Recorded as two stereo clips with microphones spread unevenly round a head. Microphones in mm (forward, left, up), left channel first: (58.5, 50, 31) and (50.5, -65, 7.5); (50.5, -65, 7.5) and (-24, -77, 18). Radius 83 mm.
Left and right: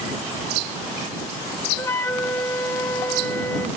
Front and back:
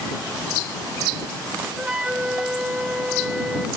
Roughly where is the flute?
Behind left.